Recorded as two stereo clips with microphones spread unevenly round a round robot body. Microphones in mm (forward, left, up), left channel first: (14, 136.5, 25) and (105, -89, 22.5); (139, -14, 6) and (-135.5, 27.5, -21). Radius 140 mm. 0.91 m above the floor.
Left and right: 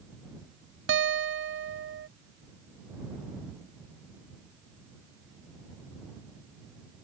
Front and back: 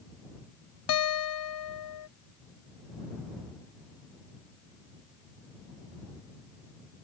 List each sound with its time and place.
0.9 s a guitar: 30° right